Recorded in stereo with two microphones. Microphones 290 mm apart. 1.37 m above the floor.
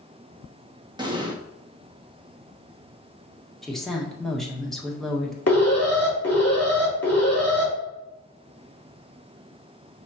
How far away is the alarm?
About 3 m.